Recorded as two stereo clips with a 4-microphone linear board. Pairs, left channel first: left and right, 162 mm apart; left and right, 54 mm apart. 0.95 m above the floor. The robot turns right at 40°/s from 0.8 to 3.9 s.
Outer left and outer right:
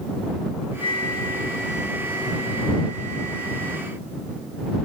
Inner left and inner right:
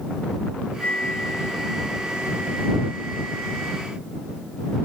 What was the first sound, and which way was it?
A flute, 145° left.